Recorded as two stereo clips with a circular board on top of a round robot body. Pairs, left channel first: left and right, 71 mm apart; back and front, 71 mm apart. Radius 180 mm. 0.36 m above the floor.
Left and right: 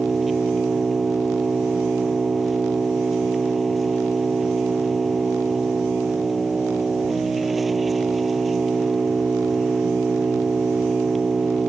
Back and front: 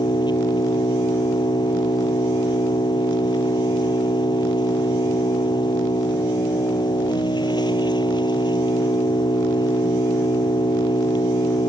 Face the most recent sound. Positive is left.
turn(degrees=-175)